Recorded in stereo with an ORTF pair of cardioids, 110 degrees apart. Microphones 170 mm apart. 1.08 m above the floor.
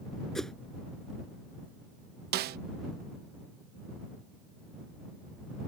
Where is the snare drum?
65° right.